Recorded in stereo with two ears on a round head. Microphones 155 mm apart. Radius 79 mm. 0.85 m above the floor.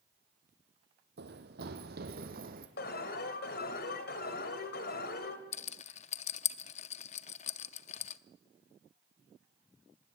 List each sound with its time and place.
1.2 s running footsteps: 70° right (ahead or behind), 2 m; by 2.7 s 55° right (ahead or behind), 3 m
2.8 s an alarm: 65° left (ahead or behind), 2.5 m
5.5 s a rattle: 40° left (ahead or behind), 0.6 m